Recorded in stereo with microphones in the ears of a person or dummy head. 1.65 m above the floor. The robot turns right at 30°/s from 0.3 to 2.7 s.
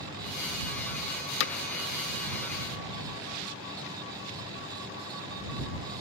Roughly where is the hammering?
Left.